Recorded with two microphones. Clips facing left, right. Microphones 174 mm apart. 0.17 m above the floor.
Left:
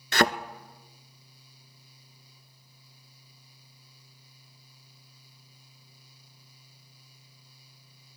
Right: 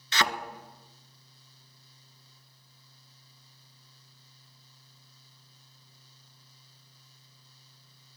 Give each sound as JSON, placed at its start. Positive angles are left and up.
{"t": 0.1, "sound": "a thud", "side_deg": 55, "distance_m": 0.8}